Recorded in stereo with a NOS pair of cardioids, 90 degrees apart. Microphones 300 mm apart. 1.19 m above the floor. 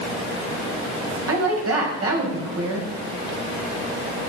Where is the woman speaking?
50° right, 6 m.